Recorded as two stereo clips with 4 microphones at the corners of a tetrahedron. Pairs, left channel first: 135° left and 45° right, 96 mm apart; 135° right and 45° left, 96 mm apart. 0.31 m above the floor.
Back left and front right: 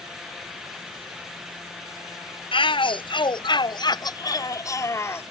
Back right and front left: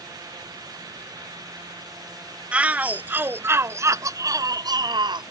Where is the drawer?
No drawer in this recording.